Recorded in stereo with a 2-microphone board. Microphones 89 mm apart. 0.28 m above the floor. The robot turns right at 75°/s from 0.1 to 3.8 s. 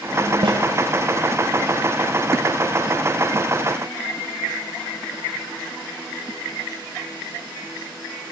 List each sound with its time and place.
0.4 s a snare drum: 60° right (ahead or behind), 6.5 m; by 0.6 s 75° right (ahead or behind), 6.5 m